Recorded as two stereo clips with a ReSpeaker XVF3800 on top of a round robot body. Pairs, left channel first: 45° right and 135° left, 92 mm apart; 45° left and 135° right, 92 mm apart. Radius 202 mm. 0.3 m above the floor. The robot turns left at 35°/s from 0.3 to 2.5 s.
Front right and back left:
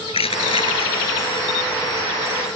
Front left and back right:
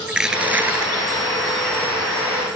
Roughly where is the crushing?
Ahead right.